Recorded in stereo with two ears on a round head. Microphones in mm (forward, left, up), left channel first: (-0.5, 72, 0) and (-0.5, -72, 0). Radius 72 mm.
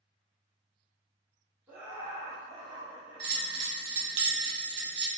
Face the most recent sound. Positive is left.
turn(degrees=-65)  # may be behind; listen again after turning